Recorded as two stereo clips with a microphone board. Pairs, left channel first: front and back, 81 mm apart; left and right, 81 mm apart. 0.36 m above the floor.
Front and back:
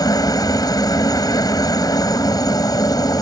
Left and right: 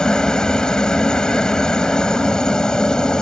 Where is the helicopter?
10° left.